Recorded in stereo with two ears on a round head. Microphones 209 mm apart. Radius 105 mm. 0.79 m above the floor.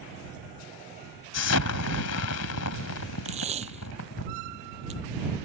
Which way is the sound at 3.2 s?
30° right (ahead or behind).